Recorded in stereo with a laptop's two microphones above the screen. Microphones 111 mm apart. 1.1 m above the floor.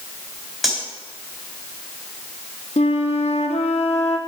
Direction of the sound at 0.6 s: 5° right (ahead or behind).